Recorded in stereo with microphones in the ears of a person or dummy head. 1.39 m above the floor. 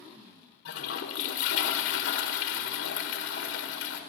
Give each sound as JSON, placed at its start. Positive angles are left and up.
{"t": 0.7, "sound": "a toilet flushing", "side_deg": 85, "distance_m": 1.5}